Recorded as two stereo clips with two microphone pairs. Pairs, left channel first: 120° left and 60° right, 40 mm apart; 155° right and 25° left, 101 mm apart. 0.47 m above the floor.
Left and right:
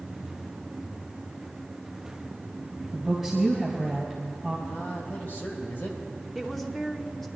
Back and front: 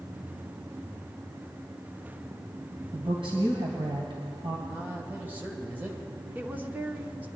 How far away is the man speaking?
About 1.9 m.